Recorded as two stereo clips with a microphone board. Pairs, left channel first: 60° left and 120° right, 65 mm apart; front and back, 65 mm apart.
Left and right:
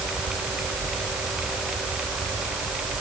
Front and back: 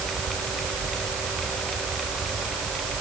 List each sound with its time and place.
Only background noise.